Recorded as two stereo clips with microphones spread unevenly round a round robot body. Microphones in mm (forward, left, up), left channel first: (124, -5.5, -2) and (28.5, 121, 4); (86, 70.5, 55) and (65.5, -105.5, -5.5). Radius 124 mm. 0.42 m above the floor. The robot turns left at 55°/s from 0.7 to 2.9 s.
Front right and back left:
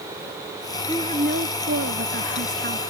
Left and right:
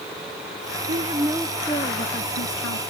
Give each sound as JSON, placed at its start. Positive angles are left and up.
{"t": 0.9, "sound": "a woman speaking", "azimuth_deg": -155}